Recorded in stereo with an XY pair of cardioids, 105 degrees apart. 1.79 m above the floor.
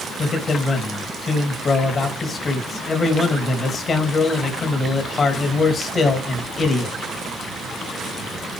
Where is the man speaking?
40° left, 3 m.